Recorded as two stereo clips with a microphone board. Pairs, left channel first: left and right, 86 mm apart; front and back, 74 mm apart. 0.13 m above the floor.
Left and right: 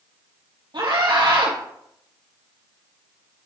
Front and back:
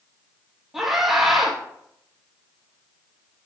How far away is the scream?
About 3 m.